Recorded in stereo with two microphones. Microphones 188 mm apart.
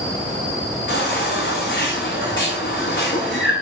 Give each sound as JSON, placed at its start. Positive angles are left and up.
{"t": 0.9, "sound": "a baby crying", "side_deg": 70, "distance_m": 7.0}